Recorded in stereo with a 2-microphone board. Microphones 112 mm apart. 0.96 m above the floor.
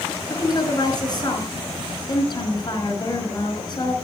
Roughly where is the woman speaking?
Left.